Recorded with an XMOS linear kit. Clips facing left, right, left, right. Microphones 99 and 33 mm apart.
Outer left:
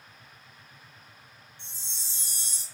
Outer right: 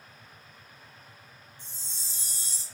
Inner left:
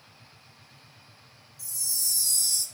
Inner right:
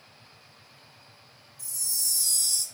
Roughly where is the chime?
Right.